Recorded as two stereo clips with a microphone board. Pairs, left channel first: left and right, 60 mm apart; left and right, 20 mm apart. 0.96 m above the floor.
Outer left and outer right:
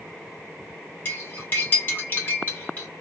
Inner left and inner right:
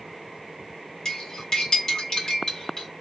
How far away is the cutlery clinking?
About 1.4 m.